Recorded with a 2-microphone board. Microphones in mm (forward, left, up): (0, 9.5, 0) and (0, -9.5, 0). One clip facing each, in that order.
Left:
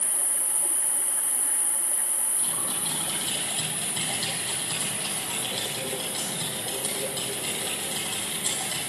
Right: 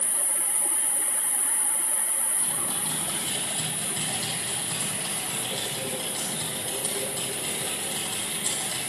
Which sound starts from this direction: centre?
Typing on a keyboard, at 2.4 s.